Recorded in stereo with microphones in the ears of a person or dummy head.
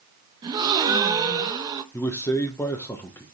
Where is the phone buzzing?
No phone buzzing in this recording.